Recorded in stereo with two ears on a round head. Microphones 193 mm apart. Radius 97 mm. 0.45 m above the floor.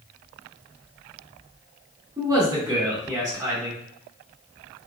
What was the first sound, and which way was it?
A man speaking, 20° right (ahead or behind).